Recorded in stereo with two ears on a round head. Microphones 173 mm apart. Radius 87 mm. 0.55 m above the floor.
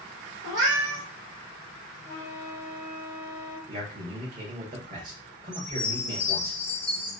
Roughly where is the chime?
Centre.